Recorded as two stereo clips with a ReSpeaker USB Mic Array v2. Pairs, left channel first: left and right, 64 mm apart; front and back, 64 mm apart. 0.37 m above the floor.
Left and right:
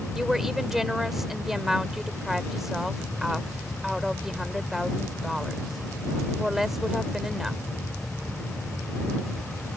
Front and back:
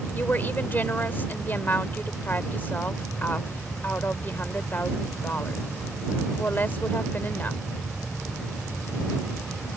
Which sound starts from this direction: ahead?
A woman speaking, at 0.1 s.